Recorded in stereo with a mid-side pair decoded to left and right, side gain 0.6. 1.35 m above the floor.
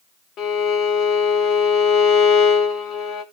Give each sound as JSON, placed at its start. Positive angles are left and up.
{"t": 0.4, "sound": "a violin", "azimuth_deg": 55, "distance_m": 2.5}